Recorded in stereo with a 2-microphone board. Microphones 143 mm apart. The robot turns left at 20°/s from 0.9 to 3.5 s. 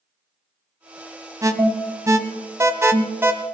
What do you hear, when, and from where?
1.4 s an alarm: 25° right (ahead or behind), 1.0 m; by 3.3 s 15° right (ahead or behind), 1.0 m